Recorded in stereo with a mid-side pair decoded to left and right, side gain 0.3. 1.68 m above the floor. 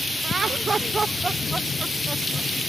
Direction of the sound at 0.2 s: 65° right.